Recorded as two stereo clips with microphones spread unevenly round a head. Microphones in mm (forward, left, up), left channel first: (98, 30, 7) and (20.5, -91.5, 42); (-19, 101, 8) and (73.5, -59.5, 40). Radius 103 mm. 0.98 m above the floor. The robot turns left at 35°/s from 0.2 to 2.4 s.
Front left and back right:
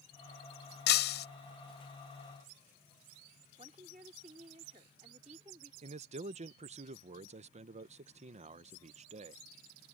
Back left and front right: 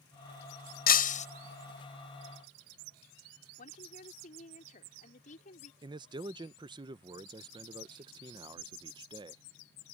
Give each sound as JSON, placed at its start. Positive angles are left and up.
{"t": 0.9, "sound": "breaking glass", "azimuth_deg": 80}
{"t": 3.6, "sound": "a woman speaking", "azimuth_deg": 175}
{"t": 5.8, "sound": "a man speaking", "azimuth_deg": -125}